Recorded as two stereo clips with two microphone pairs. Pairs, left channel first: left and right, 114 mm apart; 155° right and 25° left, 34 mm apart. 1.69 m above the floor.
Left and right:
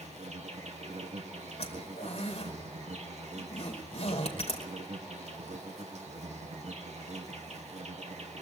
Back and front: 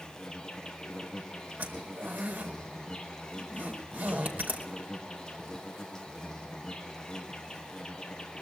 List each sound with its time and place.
0.0 s an insect: 80° right, 2.5 m
1.6 s a zipper: 55° left, 5 m